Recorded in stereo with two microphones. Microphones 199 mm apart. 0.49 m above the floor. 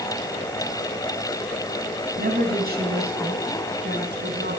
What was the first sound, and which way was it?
A woman speaking, 50° right (ahead or behind).